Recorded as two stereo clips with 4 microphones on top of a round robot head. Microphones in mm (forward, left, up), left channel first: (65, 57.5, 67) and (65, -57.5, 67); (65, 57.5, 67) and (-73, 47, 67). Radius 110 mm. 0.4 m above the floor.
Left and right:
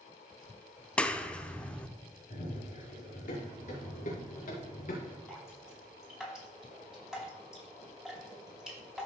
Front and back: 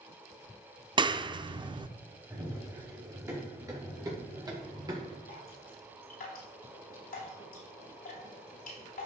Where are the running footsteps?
115° left, 4 m; by 5.2 s 125° left, 3 m.